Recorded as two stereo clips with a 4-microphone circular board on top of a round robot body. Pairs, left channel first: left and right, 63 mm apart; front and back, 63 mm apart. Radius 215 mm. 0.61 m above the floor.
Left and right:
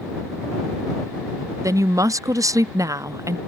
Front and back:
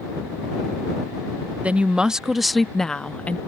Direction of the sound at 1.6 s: 115° right.